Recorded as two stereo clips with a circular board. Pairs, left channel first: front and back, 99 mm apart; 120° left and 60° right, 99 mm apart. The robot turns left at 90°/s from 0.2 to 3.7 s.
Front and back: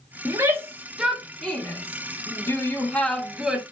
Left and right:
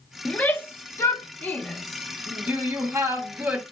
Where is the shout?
175° right, 0.7 m; by 3.6 s 120° right, 0.7 m.